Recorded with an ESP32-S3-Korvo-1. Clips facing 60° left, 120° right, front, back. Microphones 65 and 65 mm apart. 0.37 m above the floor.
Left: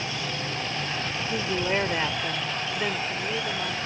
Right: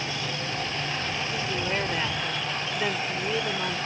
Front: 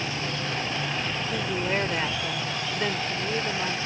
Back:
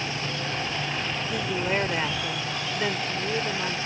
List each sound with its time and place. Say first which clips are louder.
1.3 s a woman speaking: left 5 dB, back 1 dB; 100° left; by 3.8 s 100° right